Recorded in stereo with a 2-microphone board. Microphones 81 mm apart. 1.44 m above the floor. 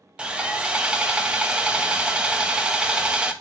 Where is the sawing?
10° right (ahead or behind), 0.6 m.